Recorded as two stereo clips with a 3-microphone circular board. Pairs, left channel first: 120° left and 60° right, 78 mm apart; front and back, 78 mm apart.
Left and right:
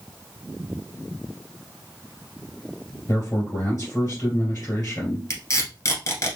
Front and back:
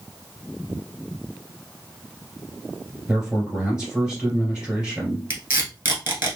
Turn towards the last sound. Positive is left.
turn(degrees=135)